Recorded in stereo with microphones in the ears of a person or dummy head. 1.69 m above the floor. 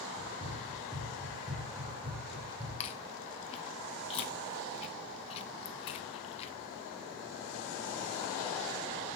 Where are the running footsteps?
15° right (ahead or behind), 4 m; by 2.7 s 35° right (ahead or behind), 5 m.